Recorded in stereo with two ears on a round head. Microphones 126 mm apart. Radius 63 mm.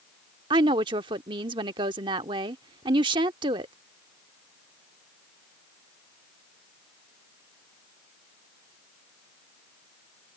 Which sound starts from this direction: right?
A woman speaking, at 0.5 s.